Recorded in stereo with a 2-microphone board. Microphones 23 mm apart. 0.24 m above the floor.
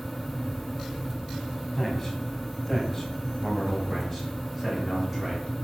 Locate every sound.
1.8 s a man speaking: 15° left (ahead or behind), 2 m; by 5.5 s 10° left (ahead or behind), 3 m